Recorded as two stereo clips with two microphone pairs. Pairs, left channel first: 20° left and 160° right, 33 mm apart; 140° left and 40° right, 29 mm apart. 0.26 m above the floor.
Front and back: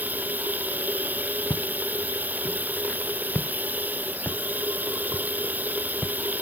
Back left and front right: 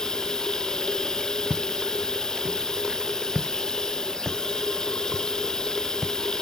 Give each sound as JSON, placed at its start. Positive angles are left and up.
{"t": 0.0, "sound": "running water", "azimuth_deg": -160}
{"t": 1.5, "sound": "footsteps", "azimuth_deg": -5}